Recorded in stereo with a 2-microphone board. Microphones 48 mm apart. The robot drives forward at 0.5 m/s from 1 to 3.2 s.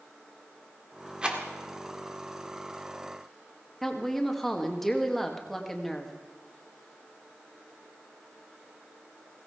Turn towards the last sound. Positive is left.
turn(degrees=0)  # may be behind; listen again after turning